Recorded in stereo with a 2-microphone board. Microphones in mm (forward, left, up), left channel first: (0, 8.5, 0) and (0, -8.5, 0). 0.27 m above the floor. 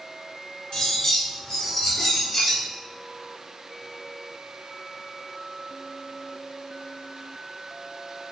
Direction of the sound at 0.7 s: 35° left (ahead or behind).